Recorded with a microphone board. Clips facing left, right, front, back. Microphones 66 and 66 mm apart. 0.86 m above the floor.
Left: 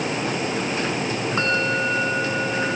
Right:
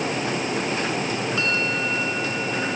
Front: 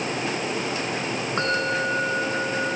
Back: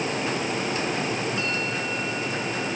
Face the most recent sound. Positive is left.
turn(degrees=35)